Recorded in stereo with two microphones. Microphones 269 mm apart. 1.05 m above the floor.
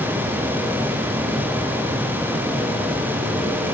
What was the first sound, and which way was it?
Only background noise.